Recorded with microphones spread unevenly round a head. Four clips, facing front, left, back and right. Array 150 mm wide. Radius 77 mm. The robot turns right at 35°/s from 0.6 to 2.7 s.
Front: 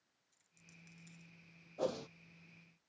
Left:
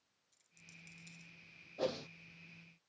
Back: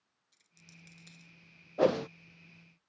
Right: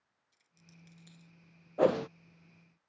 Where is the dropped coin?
175° right; by 1.3 s 150° right.